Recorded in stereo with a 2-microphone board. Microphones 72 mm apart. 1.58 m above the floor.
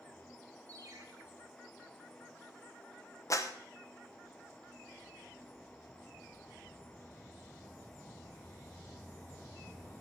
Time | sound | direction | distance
0.7 | a ringtone | 55° right (ahead or behind) | 1.9 m
3.3 | a clap | 50° left (ahead or behind) | 1.0 m